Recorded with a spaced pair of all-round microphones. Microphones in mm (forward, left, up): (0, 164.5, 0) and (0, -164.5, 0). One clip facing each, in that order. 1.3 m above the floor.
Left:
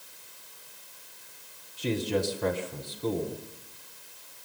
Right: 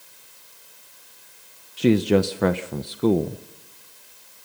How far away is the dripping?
I don't hear dripping.